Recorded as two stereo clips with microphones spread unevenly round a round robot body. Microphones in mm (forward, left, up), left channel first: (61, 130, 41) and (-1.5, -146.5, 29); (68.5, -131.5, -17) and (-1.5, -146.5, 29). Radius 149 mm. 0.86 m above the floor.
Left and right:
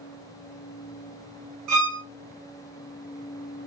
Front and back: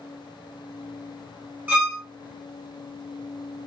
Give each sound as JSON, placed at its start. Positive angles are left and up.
{"t": 1.7, "sound": "a violin", "azimuth_deg": -130, "distance_m": 1.3}